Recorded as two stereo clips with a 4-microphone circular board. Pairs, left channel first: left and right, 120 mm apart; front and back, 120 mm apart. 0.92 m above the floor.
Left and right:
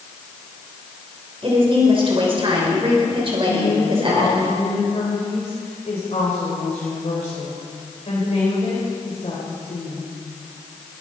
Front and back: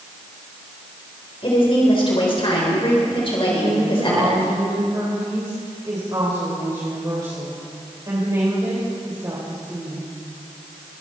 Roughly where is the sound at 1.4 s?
Ahead right.